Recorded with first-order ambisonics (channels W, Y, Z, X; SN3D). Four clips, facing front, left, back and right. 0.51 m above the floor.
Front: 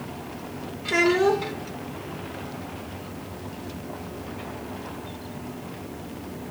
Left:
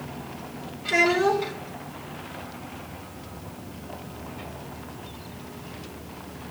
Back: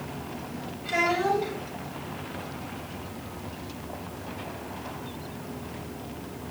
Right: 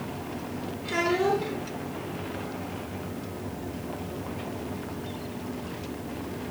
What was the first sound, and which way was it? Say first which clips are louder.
A child speaking: left 5 dB, front 5 dB; 15° left.